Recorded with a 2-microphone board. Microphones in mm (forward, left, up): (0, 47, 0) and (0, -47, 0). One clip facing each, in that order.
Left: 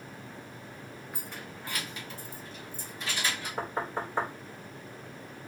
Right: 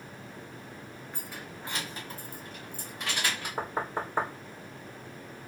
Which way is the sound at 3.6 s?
10° right (ahead or behind).